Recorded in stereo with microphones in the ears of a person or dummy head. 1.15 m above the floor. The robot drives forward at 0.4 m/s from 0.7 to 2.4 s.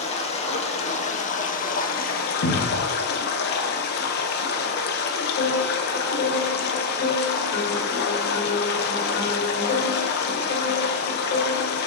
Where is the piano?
60° left (ahead or behind), 2 m.